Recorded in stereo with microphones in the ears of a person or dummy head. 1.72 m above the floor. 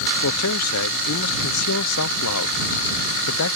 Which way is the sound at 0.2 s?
85° left.